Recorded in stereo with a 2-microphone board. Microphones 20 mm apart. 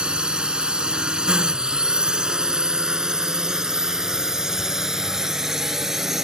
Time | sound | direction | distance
0.0 | a drone | 60° right (ahead or behind) | ?